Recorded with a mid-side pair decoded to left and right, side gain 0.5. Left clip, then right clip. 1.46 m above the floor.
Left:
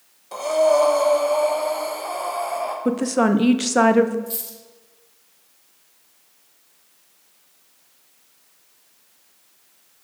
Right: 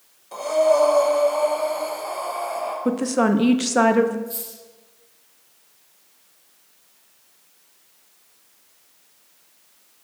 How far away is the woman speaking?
About 0.5 m.